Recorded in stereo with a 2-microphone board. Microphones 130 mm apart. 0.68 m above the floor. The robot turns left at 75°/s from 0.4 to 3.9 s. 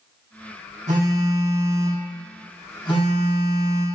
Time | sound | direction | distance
0.9 | a phone buzzing | 70° right | 2.5 m